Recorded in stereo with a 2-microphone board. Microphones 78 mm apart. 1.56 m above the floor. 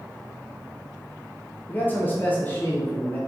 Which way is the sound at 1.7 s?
25° left (ahead or behind).